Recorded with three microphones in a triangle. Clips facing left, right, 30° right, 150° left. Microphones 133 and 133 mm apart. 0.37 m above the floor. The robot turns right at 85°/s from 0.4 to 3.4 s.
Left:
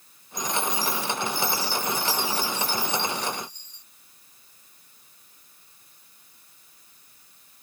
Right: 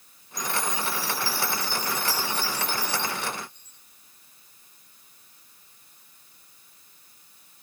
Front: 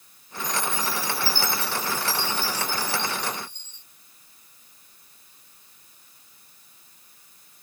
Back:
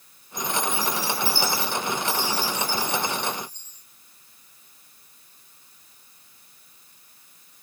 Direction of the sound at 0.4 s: 160° right.